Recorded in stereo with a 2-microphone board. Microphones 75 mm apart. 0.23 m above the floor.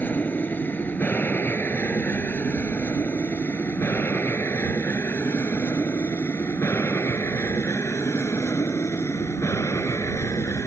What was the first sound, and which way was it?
An aircraft, 25° left (ahead or behind).